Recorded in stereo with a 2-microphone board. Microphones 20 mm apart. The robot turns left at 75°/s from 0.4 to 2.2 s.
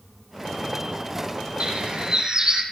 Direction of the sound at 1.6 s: 90° right.